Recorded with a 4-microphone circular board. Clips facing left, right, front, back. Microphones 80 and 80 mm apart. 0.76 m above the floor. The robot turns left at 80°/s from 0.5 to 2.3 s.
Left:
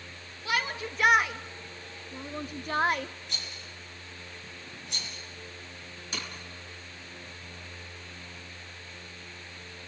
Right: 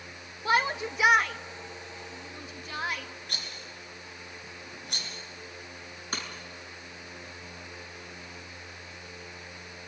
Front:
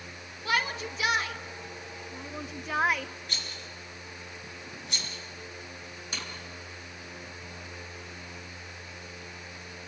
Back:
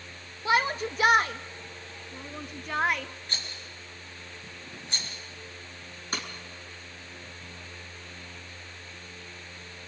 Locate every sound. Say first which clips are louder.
0.5 s a shout: right 5 dB, back 4 dB; 130° right, 0.7 m; by 3.1 s 85° left, 0.7 m
3.3 s a rattle: right 1 dB, even; 125° right, 4.5 m
6.1 s breaking glass: right 2 dB, back 5 dB; 135° right, 5 m